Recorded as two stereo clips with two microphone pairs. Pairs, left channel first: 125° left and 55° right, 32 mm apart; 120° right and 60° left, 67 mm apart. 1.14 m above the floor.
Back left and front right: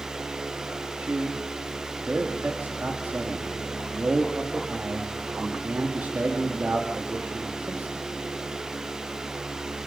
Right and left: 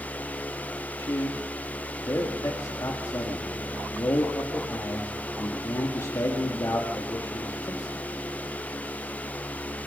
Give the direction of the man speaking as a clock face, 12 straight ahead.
3 o'clock.